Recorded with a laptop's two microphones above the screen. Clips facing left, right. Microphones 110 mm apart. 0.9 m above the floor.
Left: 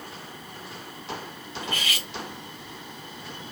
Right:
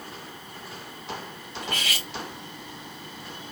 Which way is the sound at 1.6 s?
85° right.